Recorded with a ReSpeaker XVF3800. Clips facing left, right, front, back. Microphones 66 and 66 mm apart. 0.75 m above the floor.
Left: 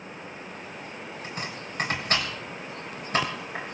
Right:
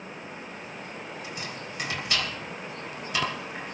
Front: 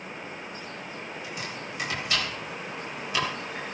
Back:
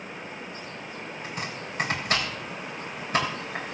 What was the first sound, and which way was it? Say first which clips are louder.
Chopping: left 1 dB, back 1 dB; 135° left.